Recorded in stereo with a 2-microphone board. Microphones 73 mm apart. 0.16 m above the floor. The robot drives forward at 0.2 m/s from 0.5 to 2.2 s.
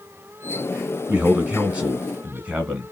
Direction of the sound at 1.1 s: 15° right (ahead or behind).